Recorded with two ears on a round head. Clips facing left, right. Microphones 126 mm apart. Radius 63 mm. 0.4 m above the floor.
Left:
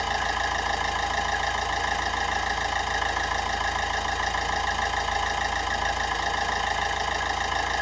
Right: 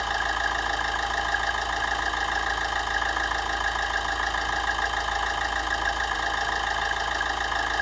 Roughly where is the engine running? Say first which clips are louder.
Left 1 dB; centre.